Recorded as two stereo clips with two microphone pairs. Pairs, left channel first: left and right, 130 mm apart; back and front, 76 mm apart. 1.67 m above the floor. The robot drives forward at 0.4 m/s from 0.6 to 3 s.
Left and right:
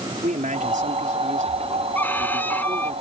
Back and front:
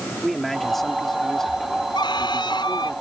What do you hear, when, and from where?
0.1 s a man speaking: 95° right; by 3.0 s 105° right
1.9 s a violin: 170° left